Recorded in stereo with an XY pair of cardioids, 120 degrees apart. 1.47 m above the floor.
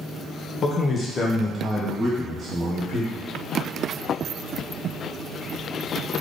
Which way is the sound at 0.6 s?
45° left.